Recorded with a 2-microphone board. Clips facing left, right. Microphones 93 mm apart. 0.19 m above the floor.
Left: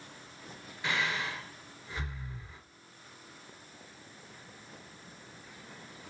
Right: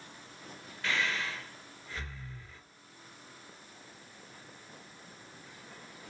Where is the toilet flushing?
No toilet flushing in this recording.